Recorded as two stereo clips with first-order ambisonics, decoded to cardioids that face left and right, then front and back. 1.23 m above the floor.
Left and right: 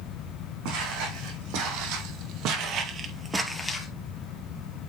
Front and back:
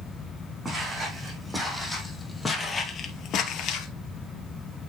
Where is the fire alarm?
No fire alarm in this recording.